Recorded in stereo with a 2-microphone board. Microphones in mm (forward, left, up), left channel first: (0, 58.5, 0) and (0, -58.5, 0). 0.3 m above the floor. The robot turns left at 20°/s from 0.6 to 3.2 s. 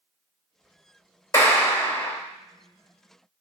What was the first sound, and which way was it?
A clap, 25° left (ahead or behind).